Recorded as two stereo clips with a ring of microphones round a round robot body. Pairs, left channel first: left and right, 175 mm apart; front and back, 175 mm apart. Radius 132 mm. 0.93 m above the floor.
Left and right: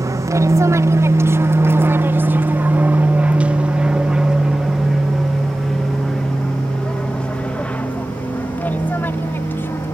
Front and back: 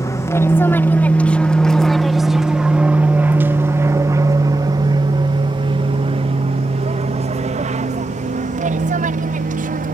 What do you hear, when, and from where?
0.0 s an aircraft: 50° right; by 9.9 s 165° left